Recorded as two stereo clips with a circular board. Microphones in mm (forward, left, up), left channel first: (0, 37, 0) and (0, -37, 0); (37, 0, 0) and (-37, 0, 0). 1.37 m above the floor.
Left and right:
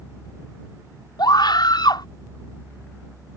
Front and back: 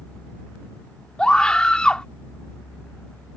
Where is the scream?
80° left.